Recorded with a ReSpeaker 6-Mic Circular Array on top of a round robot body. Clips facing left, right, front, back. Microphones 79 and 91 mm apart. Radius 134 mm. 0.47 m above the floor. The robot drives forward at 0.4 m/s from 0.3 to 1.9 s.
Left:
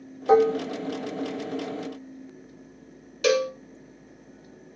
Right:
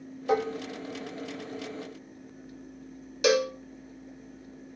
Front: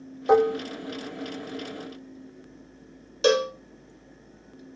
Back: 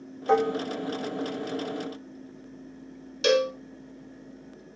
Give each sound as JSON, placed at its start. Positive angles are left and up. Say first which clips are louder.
{"t": 0.3, "sound": "dishes clattering", "louder": "left 9 dB, front 3 dB", "azimuth_deg": 60, "distance_m": 0.5}
{"t": 3.2, "sound": "a cowbell", "louder": "left 2 dB, front 1 dB", "azimuth_deg": -25, "distance_m": 0.9}